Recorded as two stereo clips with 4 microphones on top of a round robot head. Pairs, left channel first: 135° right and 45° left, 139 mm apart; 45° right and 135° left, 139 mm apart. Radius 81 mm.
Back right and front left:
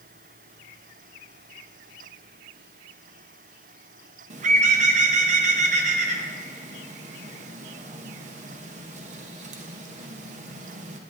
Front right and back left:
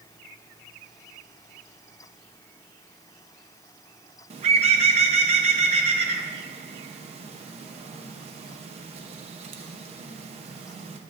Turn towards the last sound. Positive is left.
turn(degrees=85)